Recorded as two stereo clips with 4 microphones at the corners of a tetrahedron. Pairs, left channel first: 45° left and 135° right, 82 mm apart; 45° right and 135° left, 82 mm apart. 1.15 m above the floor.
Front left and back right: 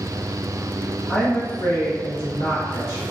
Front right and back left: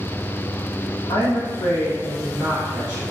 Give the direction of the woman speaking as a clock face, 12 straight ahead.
1 o'clock.